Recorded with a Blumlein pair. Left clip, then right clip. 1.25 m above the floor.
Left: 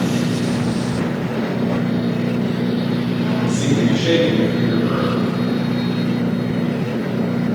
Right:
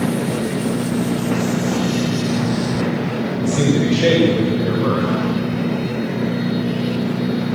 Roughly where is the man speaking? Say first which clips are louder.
Right 2 dB; ahead right.